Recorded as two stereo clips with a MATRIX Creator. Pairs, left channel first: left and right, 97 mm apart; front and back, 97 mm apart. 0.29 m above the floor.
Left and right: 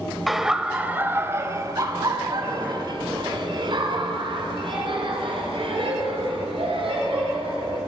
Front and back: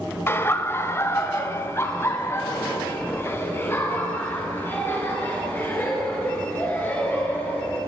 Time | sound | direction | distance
0.3 | laughter | straight ahead | 1.0 m